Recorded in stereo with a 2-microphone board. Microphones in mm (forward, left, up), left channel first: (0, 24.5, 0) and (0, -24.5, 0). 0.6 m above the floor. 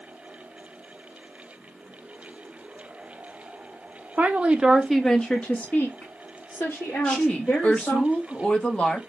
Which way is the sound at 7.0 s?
25° left (ahead or behind).